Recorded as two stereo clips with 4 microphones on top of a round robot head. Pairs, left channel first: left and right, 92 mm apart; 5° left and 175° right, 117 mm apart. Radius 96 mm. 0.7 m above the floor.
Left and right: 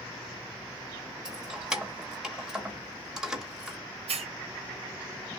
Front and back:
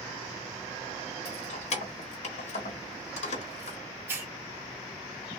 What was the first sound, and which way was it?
Keys jangling, 10° right.